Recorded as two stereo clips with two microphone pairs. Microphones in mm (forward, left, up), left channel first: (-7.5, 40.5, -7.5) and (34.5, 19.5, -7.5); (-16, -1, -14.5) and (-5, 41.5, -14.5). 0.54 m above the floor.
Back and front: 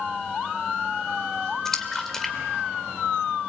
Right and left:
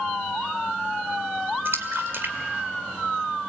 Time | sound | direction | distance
1.6 | a splash | 75° left | 1.8 m